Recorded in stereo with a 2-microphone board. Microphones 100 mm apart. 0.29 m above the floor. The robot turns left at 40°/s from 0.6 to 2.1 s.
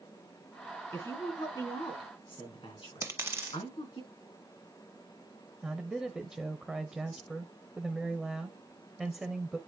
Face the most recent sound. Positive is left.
turn(degrees=-5)  # may be behind; listen again after turning